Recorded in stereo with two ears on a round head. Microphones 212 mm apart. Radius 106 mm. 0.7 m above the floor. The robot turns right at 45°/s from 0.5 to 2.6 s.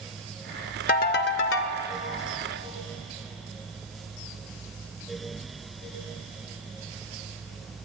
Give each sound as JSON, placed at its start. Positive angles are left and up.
{"t": 0.9, "sound": "a ringtone", "azimuth_deg": 45, "distance_m": 0.5}